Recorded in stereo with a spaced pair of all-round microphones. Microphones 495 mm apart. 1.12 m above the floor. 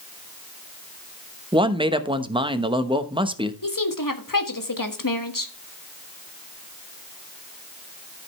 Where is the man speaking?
10° right (ahead or behind), 0.9 m.